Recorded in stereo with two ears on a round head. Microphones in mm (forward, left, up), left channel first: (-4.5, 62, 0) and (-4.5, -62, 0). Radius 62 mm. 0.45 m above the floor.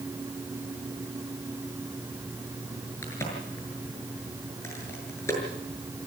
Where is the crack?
20° left (ahead or behind), 7 m.